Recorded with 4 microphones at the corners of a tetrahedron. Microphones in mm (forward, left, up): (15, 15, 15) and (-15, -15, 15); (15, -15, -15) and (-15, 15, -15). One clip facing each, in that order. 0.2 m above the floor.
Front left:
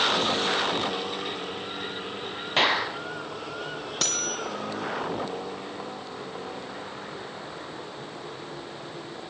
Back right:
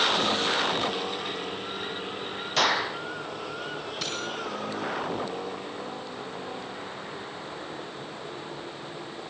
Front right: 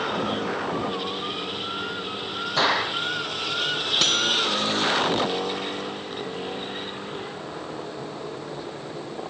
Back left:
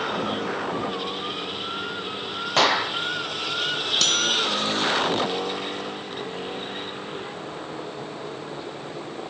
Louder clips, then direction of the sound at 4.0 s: Front left 3 dB, even; 30° left.